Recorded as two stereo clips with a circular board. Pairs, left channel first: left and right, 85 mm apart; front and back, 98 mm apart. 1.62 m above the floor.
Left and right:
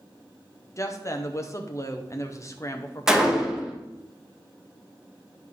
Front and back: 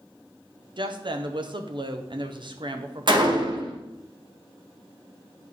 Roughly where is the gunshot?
Behind.